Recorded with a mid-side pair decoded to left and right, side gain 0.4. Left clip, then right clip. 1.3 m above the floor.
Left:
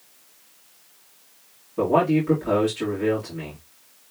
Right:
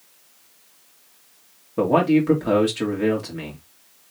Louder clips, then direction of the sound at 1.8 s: Right 2 dB; 55° right.